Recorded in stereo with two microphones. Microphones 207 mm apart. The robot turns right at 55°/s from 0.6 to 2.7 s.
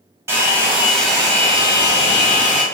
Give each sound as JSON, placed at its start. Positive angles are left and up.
{"t": 0.3, "sound": "a hair dryer", "azimuth_deg": -25, "distance_m": 1.0}